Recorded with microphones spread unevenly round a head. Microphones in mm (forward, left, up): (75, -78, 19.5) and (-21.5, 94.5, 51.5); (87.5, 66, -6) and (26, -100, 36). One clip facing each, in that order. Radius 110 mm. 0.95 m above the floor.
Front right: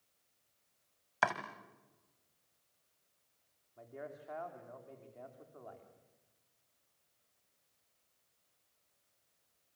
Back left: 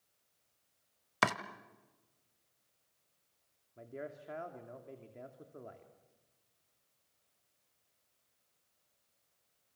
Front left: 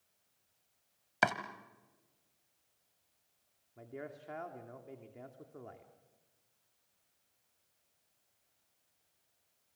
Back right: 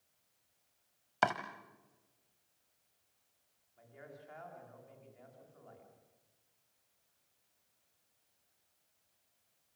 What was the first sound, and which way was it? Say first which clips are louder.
Chopping: back left 1 dB, even; 155° left.